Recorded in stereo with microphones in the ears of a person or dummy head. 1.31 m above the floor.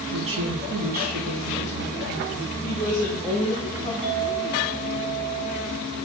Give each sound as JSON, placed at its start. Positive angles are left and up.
{"t": 0.1, "sound": "a woman speaking", "side_deg": -65, "distance_m": 0.9}
{"t": 2.6, "sound": "a woman speaking", "side_deg": 15, "distance_m": 1.4}
{"t": 4.0, "sound": "a clink", "side_deg": -15, "distance_m": 4.5}